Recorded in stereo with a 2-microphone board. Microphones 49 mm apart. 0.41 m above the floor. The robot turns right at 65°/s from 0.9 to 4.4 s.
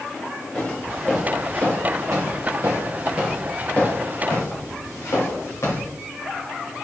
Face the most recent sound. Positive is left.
turn(degrees=80)